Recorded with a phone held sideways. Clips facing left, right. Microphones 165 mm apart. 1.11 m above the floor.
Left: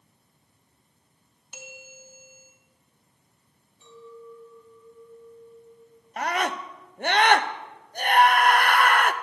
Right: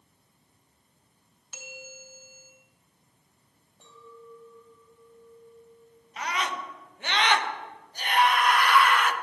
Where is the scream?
55° left (ahead or behind), 0.9 m.